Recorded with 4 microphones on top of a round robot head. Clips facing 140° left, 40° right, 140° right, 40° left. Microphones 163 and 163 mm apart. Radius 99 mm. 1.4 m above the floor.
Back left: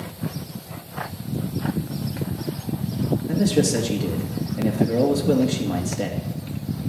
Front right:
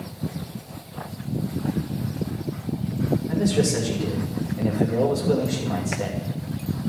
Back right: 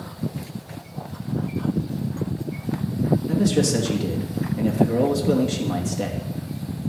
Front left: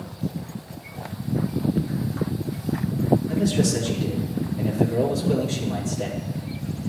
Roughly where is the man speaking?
Behind.